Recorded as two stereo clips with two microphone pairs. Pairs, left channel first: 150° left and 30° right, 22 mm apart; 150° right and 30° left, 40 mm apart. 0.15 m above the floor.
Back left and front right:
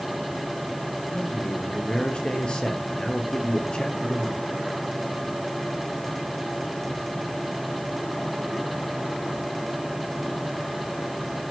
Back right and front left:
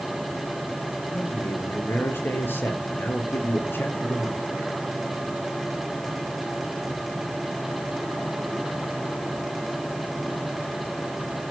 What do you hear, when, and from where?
1.1 s a man speaking: 165° right, 4 m